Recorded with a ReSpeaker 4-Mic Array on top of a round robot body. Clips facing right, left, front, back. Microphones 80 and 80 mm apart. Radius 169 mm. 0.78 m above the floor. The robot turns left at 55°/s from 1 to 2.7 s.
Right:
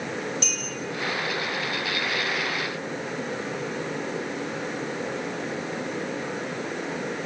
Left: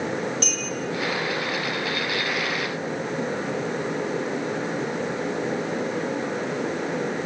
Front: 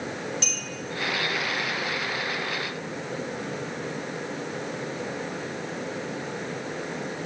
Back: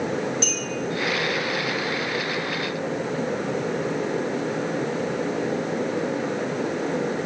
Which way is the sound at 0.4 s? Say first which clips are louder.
Left 3 dB, back 6 dB; 130° left.